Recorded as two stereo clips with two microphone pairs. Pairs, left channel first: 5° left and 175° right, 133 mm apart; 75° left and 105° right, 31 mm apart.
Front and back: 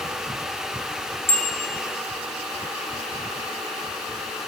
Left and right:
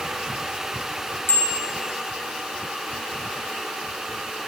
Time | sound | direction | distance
1.3 | a bicycle bell | 75° left | 5 m